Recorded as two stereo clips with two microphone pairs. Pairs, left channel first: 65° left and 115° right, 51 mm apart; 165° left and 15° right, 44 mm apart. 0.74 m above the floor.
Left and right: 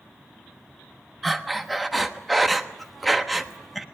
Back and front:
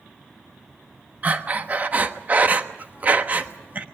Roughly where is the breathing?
Ahead right.